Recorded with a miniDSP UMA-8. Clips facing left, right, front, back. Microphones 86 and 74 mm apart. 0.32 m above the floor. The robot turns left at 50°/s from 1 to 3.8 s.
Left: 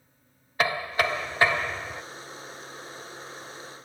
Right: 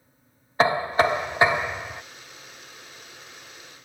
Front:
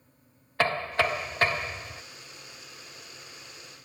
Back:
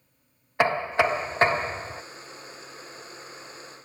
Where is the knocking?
125° right; by 2.0 s 175° right.